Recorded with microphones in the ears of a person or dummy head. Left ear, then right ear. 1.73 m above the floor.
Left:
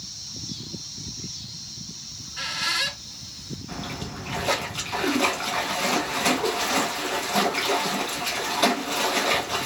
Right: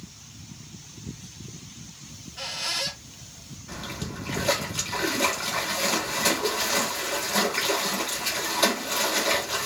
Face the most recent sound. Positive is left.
turn(degrees=0)  # may be behind; listen again after turning